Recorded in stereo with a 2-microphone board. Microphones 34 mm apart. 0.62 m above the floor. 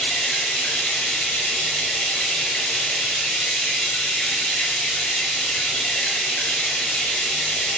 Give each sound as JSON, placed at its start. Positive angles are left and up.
{"t": 0.0, "sound": "running water", "side_deg": 35, "distance_m": 1.0}